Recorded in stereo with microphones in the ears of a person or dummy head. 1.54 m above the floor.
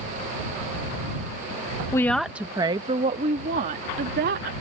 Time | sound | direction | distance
1.9 | a woman speaking | 15° left (ahead or behind) | ?